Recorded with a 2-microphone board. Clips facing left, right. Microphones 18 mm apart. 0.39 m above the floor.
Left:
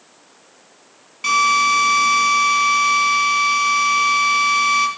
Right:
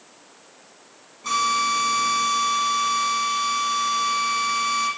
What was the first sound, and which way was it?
A drill, 75° left (ahead or behind).